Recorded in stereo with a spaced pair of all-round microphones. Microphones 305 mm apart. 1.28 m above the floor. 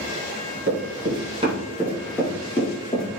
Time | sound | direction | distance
0.7 | running footsteps | 35° right (ahead or behind) | 1.5 m